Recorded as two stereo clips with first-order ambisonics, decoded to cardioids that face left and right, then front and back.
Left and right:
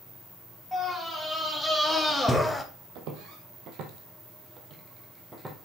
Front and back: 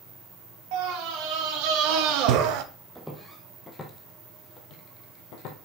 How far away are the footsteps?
About 1.9 m.